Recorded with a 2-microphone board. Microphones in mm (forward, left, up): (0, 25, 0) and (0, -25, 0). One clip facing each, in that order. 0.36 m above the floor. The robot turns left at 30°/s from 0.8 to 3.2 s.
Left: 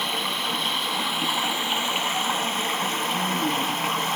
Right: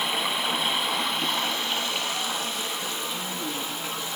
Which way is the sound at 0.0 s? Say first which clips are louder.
Even; 170° right.